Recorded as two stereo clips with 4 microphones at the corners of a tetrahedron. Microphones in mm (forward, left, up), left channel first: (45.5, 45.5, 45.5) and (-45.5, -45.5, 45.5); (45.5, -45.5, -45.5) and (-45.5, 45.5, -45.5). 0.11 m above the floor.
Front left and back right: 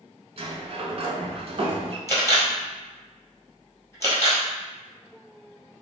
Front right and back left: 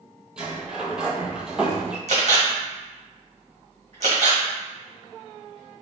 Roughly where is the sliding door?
Behind right.